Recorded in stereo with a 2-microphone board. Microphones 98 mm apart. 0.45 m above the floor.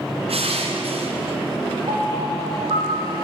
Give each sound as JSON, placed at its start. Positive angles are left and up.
{"t": 0.3, "sound": "crushing", "side_deg": -75, "distance_m": 3.5}
{"t": 1.9, "sound": "a piano", "side_deg": -70, "distance_m": 3.0}